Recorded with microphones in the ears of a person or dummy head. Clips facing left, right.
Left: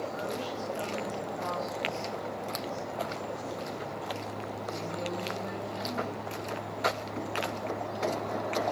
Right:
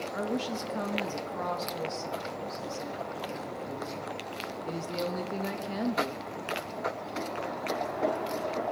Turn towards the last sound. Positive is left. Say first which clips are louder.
# right 3 dB
turn(degrees=-75)  # may be behind; listen again after turning